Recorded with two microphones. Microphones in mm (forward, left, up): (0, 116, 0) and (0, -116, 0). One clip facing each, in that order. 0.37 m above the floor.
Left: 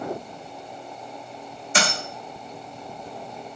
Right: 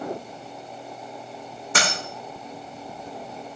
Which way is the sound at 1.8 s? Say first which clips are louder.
Left 1 dB; 75° right (ahead or behind).